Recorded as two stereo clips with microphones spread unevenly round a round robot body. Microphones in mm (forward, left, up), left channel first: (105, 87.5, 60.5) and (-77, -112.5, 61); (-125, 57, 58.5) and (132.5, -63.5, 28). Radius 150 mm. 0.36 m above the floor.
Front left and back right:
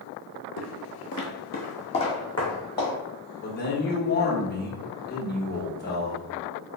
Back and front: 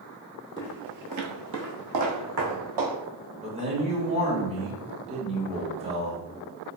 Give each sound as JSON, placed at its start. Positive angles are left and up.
{"t": 0.6, "sound": "footsteps", "azimuth_deg": 85, "distance_m": 0.5}
{"t": 3.4, "sound": "a man speaking", "azimuth_deg": 20, "distance_m": 1.2}